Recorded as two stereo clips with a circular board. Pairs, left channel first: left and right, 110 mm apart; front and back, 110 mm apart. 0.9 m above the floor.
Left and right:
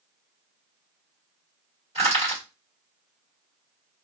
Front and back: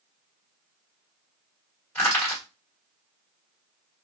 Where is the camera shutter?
I don't hear a camera shutter.